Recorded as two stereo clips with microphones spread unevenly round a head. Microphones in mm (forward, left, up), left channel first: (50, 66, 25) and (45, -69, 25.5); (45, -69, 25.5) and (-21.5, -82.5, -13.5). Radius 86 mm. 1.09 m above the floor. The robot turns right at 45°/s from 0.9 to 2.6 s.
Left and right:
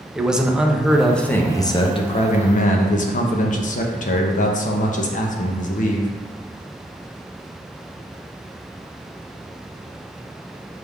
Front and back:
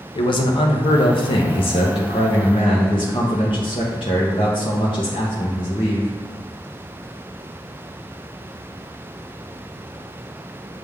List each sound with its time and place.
0.1 s a man speaking: 5° right, 0.7 m; by 6.1 s 70° left, 0.7 m